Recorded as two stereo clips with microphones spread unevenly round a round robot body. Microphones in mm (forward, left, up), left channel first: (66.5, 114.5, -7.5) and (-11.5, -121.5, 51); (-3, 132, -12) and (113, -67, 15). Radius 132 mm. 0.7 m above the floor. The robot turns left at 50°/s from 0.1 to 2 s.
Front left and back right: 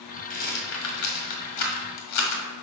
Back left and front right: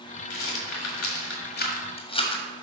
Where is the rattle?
140° left, 1.6 m; by 2.4 s 55° left, 1.6 m.